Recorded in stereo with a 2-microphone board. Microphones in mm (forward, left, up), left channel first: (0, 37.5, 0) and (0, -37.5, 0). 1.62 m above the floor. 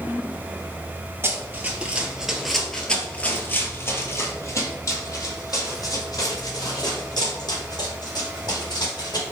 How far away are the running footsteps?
About 1.8 m.